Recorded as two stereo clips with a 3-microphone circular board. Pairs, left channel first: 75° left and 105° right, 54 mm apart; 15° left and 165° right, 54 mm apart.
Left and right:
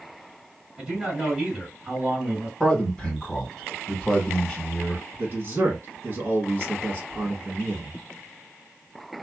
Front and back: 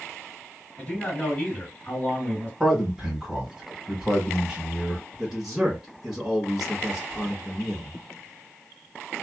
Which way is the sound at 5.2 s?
85° right.